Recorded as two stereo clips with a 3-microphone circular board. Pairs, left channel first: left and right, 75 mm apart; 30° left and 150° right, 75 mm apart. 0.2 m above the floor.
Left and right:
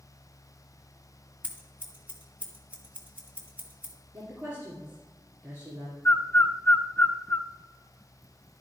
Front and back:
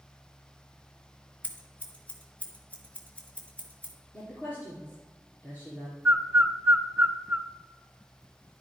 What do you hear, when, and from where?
1.4 s scissors: 30° right, 2 m
4.1 s a woman speaking: 30° right, 3 m
6.0 s a bird: 145° left, 0.6 m